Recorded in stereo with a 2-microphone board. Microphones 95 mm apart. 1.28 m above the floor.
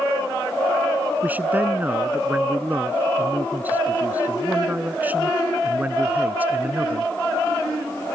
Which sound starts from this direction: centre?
A man speaking, at 1.2 s.